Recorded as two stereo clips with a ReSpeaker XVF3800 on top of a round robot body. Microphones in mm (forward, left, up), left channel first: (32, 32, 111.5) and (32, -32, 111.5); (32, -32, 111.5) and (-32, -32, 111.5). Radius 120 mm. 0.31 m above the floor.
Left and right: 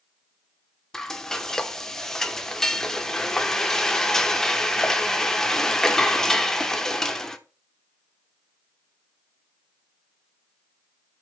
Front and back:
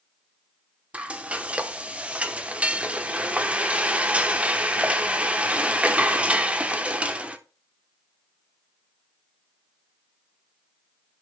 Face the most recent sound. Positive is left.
turn(degrees=160)